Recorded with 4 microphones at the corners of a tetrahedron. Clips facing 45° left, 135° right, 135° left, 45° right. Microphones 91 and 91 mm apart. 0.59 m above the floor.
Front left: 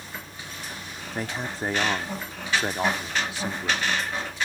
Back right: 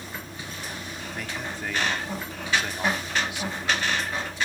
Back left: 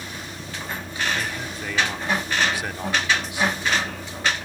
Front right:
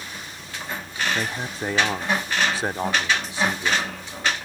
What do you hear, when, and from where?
0.0 s a vehicle: 175° left
1.1 s a man speaking: straight ahead